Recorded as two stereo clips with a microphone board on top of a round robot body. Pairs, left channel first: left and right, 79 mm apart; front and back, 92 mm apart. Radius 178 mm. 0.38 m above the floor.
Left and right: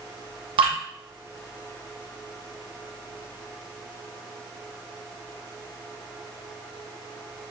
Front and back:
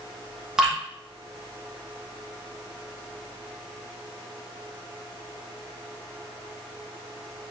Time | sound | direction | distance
0.6 | dripping | 95° right | 0.7 m